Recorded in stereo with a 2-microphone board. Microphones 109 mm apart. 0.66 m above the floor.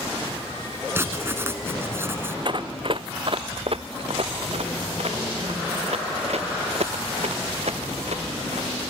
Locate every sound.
0.9 s writing: 20° right (ahead or behind)
2.5 s running footsteps: 45° right (ahead or behind); by 8.7 s 80° right